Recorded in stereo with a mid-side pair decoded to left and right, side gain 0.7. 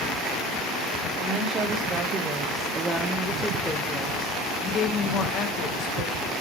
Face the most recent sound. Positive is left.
turn(degrees=70)